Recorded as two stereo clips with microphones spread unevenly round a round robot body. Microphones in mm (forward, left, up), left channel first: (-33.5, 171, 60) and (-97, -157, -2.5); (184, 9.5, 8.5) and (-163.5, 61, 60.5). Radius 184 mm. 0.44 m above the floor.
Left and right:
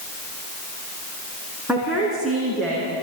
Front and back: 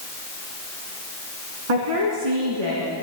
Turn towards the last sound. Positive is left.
turn(degrees=165)